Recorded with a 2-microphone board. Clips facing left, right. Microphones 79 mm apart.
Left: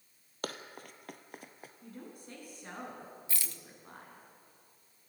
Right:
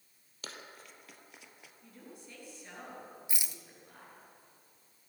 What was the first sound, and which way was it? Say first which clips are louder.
Running footsteps: left 7 dB; 50° left (ahead or behind).